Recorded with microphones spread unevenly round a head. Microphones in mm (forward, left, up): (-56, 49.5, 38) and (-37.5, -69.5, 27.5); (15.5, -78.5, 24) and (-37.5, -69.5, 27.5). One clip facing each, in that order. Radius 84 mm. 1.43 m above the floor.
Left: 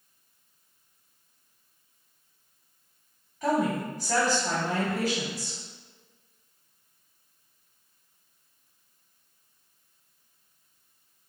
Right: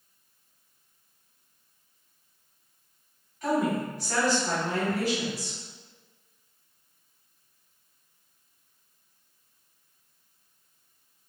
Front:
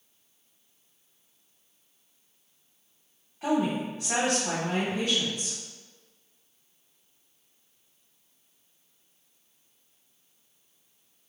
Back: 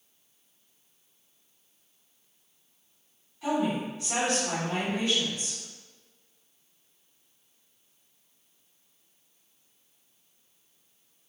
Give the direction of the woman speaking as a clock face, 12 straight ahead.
10 o'clock.